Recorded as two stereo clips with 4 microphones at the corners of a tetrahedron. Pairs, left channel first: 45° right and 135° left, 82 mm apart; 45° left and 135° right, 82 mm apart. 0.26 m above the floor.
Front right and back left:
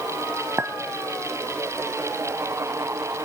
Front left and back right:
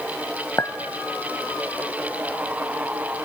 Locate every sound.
0.6 s a clink: 85° left, 1.3 m